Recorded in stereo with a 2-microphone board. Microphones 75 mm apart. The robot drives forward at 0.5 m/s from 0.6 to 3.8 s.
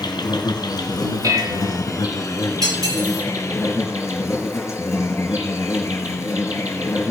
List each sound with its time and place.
0.0 s an insect: 65° left (ahead or behind), 2 m; by 7.1 s 35° left (ahead or behind), 3 m
1.2 s dishes clattering: 50° right (ahead or behind), 1.4 m; by 1.8 s 55° right (ahead or behind), 1.2 m
2.6 s cutlery clinking: 55° right (ahead or behind), 6 m; by 3.2 s 50° right (ahead or behind), 6 m